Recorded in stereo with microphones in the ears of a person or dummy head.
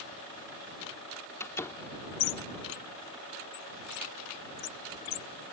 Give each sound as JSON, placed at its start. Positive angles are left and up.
{"t": 1.4, "sound": "a door slam", "side_deg": 20}